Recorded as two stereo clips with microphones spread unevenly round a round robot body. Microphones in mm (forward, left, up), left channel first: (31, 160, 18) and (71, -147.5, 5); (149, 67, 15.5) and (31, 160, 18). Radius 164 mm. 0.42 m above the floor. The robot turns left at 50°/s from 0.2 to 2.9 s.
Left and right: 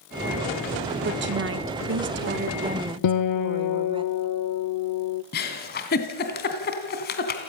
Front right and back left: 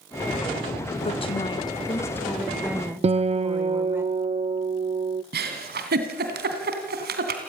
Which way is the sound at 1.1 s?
55° right.